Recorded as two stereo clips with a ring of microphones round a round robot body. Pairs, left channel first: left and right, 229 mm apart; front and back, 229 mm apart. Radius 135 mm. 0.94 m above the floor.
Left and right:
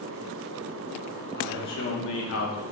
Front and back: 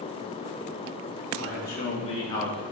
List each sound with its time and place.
1.4 s a man speaking: 45° left, 2.5 m; by 2.6 s 85° left, 2 m